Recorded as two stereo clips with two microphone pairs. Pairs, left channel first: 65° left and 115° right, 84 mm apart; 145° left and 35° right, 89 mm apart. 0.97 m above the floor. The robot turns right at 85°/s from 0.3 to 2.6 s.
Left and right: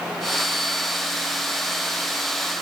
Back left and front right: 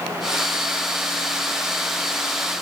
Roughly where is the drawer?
I don't hear a drawer.